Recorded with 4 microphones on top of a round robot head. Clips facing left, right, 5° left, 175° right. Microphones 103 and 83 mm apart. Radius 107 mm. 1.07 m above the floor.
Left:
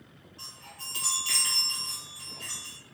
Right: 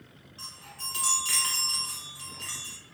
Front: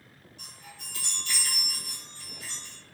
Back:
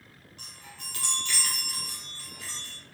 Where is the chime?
160° right, 1.0 m.